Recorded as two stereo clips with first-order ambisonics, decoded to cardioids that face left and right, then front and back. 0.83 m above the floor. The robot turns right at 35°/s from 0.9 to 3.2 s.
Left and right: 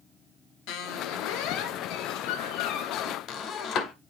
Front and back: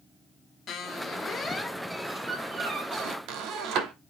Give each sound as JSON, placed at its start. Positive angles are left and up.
{"t": 0.7, "sound": "a squeak", "azimuth_deg": 60, "distance_m": 0.8}